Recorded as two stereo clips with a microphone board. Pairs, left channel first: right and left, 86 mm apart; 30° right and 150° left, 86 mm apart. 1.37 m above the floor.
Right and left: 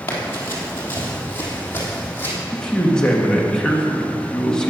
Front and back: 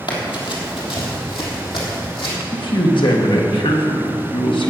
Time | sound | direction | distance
0.1 | running footsteps | 35° right | 2.5 m
2.5 | a man speaking | 10° right | 1.8 m